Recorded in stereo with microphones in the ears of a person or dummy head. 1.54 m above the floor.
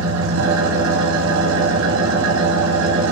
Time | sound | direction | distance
0.0 | an engine running | 80° right | 2 m